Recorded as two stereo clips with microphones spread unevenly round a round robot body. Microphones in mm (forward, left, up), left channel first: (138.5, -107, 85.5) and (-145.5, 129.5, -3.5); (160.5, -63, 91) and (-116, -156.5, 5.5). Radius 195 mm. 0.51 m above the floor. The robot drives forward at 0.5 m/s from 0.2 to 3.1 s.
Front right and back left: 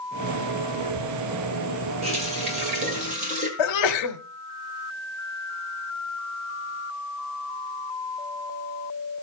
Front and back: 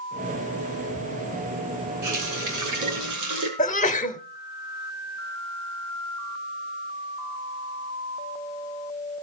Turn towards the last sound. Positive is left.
turn(degrees=-55)